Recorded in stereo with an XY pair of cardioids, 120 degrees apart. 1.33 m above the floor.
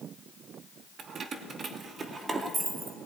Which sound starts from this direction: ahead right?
Keys jangling, at 1.0 s.